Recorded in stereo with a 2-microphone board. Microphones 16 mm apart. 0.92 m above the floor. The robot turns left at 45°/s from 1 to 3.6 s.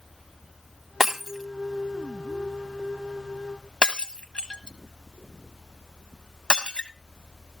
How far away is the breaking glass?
About 1.1 m.